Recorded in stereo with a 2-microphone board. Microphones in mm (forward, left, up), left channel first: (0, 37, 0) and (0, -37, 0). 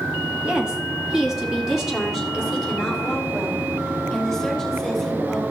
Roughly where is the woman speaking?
Centre.